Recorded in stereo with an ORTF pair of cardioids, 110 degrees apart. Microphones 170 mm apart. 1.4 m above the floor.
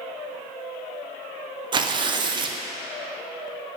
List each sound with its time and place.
1.7 s tearing paper: 30° right, 0.6 m